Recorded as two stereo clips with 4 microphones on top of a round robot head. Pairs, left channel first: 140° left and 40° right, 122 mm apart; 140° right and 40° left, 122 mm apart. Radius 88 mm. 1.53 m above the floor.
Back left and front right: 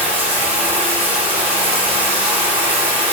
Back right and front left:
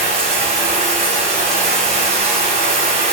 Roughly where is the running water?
Ahead.